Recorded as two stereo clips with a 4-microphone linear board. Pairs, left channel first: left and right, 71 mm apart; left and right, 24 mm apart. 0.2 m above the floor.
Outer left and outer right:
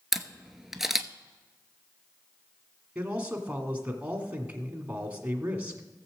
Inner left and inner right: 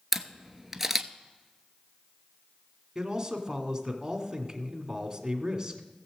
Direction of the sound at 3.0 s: 20° right (ahead or behind).